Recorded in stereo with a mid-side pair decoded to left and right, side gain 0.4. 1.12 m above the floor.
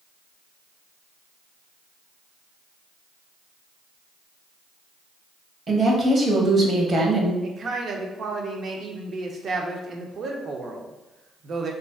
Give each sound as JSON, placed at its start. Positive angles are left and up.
{"t": 5.7, "sound": "a woman speaking", "azimuth_deg": -45, "distance_m": 0.8}
{"t": 7.4, "sound": "a man speaking", "azimuth_deg": -55, "distance_m": 0.6}